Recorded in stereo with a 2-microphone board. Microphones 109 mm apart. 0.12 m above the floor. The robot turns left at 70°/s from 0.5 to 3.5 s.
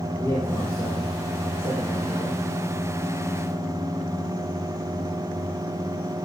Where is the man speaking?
155° left, 4 m; by 2.4 s 20° left, 4 m.